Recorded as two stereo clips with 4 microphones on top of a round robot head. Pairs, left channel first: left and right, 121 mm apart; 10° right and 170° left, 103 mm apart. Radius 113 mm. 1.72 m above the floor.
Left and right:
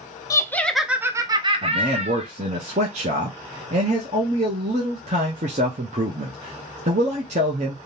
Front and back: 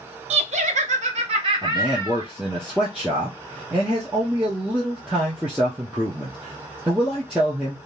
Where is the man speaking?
110° right, 0.7 m.